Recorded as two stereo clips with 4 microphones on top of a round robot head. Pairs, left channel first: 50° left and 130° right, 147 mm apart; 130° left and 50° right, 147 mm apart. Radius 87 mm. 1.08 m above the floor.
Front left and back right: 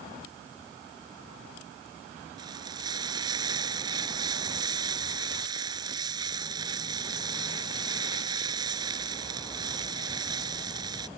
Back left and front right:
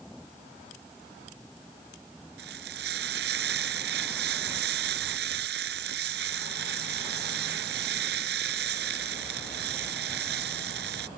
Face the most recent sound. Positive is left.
turn(degrees=-65)